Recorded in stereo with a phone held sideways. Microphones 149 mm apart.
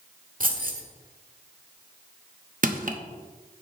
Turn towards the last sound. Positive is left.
turn(degrees=-65)  # may be behind; listen again after turning